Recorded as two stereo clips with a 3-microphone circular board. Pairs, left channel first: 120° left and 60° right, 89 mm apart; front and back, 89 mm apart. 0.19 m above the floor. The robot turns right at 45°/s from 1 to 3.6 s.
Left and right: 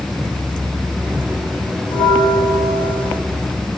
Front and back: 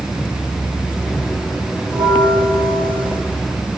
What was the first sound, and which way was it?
A bell, 140° left.